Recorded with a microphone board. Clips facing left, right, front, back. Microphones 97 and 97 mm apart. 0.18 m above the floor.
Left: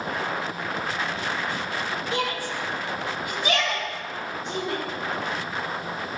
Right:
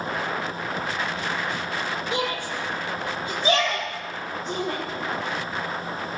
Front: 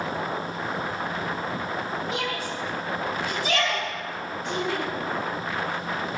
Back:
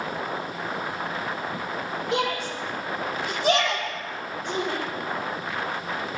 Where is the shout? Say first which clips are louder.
Even, back 3 dB; 160° right, 5 m; by 4.8 s 140° right, 7 m.